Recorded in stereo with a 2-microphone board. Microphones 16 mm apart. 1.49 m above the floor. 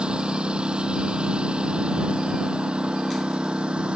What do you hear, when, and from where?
0.0 s a lawn mower: 65° right (ahead or behind); by 4.0 s 85° right